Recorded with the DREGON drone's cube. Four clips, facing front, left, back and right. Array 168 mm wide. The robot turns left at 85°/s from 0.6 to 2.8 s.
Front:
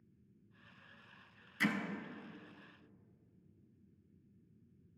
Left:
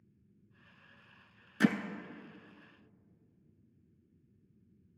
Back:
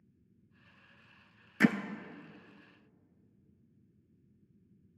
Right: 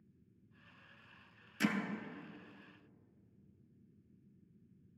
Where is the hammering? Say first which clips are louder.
Left 7 dB, back 9 dB; 155° left, 0.6 m; by 1.8 s 140° left, 0.6 m.